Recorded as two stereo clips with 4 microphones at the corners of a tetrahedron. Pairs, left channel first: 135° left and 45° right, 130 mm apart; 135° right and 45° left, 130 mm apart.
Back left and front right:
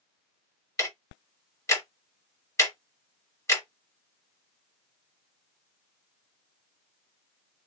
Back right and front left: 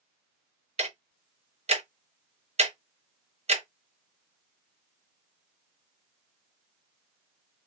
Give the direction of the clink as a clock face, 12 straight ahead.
No clink in this recording.